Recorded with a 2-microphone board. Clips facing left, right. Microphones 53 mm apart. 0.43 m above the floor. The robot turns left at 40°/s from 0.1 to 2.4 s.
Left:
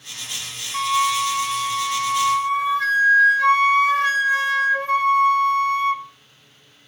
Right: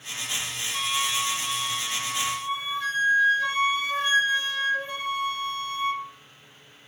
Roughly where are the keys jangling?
No keys jangling in this recording.